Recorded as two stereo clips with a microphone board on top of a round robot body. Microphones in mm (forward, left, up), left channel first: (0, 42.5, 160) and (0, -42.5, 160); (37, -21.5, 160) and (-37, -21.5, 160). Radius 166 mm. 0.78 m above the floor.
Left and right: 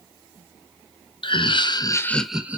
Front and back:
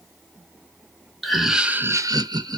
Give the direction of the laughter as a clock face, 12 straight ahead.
9 o'clock.